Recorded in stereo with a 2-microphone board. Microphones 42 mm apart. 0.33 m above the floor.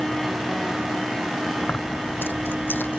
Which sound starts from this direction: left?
Keys jangling, at 1.6 s.